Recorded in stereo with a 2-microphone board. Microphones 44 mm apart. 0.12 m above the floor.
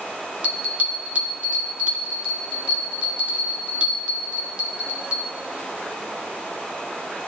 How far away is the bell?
About 1.2 m.